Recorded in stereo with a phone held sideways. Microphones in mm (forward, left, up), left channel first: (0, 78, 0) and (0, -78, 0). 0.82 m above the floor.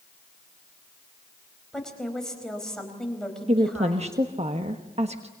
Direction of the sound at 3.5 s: 40° right (ahead or behind).